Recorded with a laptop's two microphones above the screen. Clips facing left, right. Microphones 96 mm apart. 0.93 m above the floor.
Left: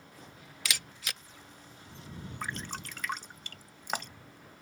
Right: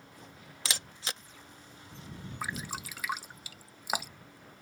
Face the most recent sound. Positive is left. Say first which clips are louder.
# right 1 dB
turn(degrees=-10)  # may be behind; listen again after turning